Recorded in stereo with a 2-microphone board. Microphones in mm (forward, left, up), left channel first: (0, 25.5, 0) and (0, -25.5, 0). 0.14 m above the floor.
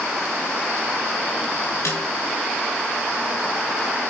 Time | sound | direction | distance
1.9 | a snare drum | 75° left (ahead or behind) | 6 m